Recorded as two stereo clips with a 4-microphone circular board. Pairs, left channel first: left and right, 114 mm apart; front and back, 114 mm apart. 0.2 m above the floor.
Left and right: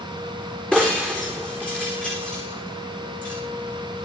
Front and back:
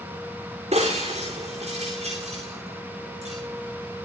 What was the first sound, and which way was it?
Breaking glass, 170° left.